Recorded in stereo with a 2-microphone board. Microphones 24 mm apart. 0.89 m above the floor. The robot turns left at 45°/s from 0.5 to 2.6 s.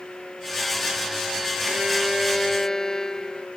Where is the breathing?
I don't hear breathing.